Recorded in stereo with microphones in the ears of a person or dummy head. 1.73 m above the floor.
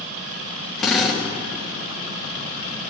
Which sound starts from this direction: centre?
A drill, at 0.8 s.